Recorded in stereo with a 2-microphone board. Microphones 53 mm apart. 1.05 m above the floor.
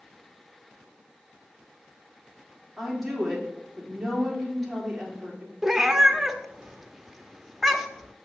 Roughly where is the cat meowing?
Centre.